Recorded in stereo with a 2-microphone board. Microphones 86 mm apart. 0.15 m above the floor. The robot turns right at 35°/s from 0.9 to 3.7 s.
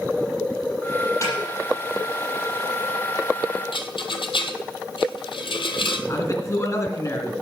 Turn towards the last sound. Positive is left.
turn(degrees=40)  # may be behind; listen again after turning